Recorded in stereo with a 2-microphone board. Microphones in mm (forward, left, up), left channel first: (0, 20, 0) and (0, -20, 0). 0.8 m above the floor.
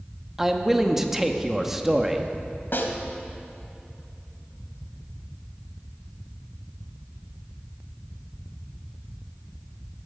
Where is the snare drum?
65° left (ahead or behind), 1.5 m.